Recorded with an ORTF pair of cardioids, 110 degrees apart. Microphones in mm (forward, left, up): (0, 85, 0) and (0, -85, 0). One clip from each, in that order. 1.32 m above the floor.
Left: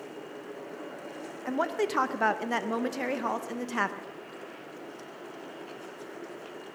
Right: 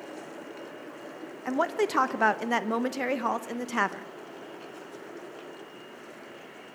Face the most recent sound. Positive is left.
turn(degrees=-15)